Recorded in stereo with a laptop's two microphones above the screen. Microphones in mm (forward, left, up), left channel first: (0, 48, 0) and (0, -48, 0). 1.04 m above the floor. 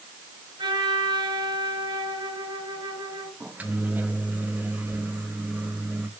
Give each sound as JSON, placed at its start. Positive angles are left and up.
{"t": 0.6, "sound": "a trumpet", "side_deg": -55, "distance_m": 4.5}
{"t": 3.4, "sound": "a microwave", "side_deg": -15, "distance_m": 0.9}